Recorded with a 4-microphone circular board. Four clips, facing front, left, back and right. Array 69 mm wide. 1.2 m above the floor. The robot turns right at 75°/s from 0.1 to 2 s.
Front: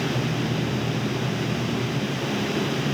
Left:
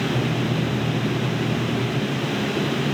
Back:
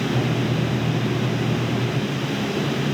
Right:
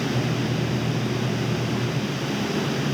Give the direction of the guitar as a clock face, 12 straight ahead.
No guitar in this recording.